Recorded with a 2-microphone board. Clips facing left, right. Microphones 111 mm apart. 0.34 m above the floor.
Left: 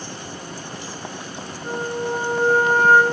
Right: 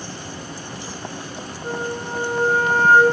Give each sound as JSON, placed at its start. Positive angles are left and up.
{"t": 1.6, "sound": "a flute", "side_deg": -20, "distance_m": 1.7}